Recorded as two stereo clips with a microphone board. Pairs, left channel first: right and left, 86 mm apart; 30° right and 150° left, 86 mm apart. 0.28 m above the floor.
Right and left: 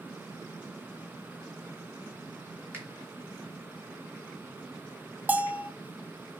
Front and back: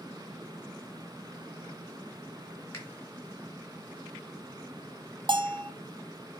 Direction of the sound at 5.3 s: 160° left.